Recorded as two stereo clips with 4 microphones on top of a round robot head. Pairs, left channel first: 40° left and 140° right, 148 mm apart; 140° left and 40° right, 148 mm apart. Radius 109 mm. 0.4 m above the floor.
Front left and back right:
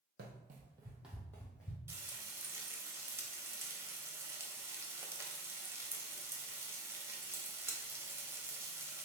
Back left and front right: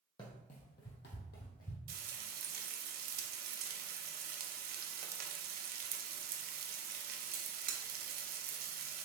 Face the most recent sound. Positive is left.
turn(degrees=-65)